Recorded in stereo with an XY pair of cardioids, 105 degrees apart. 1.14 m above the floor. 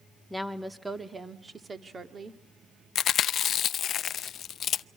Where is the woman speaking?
Straight ahead, 2 m; by 2.4 s 40° right, 2.5 m.